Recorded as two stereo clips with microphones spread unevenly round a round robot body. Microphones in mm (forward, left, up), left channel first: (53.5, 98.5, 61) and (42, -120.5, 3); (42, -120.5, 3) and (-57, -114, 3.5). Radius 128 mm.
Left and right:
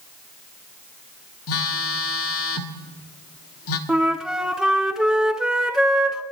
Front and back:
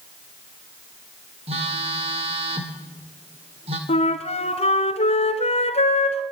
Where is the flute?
Straight ahead, 1.9 m.